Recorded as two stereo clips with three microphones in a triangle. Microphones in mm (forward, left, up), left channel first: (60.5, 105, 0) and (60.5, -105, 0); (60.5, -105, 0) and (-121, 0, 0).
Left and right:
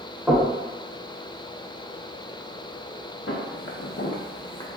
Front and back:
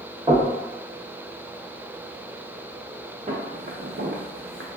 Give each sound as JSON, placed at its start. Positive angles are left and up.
{"t": 0.3, "sound": "knocking", "azimuth_deg": -175, "distance_m": 1.2}
{"t": 3.3, "sound": "footsteps", "azimuth_deg": 100, "distance_m": 1.1}